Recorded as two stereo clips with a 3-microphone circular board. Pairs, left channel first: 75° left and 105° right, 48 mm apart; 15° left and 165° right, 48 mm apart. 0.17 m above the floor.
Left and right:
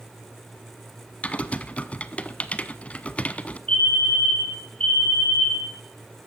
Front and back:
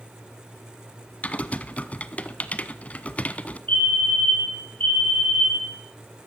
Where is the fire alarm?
40° left, 3 m.